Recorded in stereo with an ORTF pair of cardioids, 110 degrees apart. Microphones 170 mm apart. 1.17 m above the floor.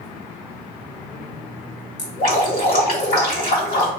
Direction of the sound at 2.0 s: 55° left.